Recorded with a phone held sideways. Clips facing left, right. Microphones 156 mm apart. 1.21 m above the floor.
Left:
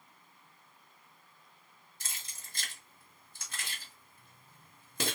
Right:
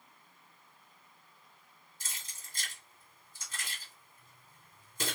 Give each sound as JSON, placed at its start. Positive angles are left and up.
{"t": 2.0, "sound": "keys jangling", "side_deg": 70, "distance_m": 1.5}